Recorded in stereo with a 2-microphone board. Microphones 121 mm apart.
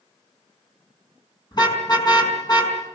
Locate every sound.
1.5 s a car horn: 35° left (ahead or behind), 5 m